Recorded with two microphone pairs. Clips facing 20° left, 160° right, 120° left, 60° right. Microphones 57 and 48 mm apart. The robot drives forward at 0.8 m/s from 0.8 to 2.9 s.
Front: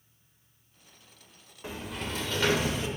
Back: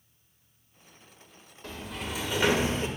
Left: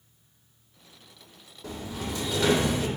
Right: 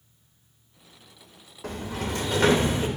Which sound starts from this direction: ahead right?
A sliding door, at 1.6 s.